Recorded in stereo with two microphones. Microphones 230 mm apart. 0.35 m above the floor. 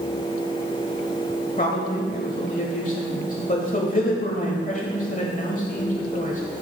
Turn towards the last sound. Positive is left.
turn(degrees=35)  # may be behind; listen again after turning